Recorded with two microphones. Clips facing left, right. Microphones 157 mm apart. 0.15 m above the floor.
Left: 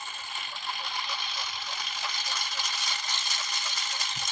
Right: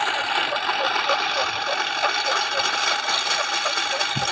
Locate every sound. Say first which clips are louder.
0.0 s a lawn mower: right 17 dB; 70° right (ahead or behind); by 4.3 s 85° right